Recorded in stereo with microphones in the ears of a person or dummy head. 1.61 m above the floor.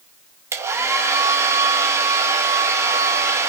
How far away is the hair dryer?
About 1.4 m.